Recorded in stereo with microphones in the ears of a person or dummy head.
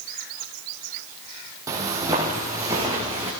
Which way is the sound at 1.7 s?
20° right (ahead or behind).